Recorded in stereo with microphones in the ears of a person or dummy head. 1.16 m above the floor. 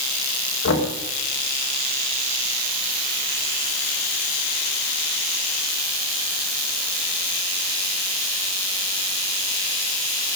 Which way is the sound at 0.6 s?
75° left (ahead or behind).